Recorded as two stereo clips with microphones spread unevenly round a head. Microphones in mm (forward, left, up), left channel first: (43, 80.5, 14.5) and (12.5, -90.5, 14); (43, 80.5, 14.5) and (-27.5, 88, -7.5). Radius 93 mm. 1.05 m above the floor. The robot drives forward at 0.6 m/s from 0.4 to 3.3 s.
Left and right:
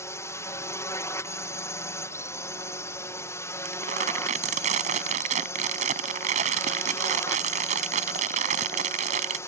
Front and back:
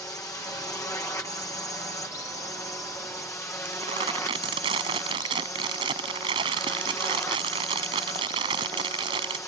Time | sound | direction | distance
0.0 | a drone | 15° left | ?
3.6 | crumpling | 155° right | ?